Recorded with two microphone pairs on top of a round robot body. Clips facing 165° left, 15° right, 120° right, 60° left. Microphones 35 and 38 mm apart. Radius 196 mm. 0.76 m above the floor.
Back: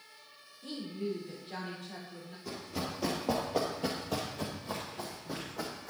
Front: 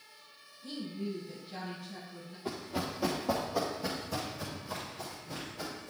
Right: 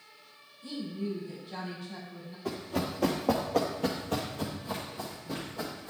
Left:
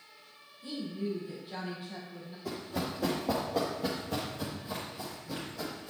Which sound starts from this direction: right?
Running footsteps, at 2.5 s.